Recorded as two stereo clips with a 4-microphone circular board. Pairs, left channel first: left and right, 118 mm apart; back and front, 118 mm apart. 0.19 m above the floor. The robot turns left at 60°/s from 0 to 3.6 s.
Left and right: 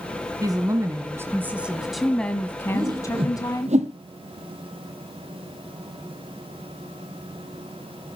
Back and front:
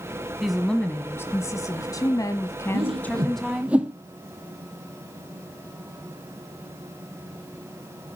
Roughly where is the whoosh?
Ahead right.